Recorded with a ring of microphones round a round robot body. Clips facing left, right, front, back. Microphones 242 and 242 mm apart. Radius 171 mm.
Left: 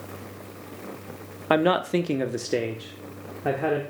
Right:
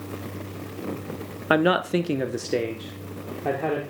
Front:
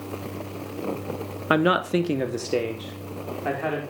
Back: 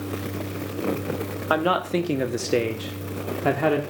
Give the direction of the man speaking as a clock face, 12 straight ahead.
1 o'clock.